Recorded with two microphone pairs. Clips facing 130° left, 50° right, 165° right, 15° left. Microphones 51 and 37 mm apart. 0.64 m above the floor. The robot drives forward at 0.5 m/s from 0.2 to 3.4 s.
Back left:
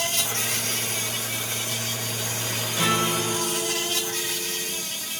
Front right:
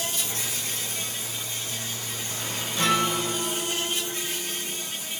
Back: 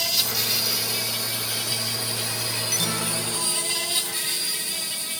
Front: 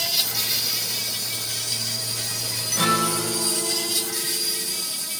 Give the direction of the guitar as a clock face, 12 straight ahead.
11 o'clock.